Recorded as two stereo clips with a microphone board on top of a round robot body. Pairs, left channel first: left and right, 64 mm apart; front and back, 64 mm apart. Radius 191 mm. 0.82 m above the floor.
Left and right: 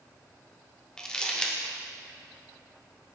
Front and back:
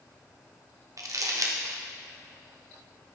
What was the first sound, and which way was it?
Crumpling, 170° left.